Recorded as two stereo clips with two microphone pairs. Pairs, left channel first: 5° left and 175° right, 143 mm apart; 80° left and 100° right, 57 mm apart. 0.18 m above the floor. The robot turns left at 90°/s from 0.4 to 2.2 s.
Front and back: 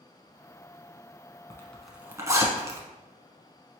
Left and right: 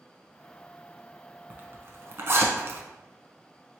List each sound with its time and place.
1.5 s a zipper: 50° right, 0.9 m; by 2.8 s 110° right, 0.9 m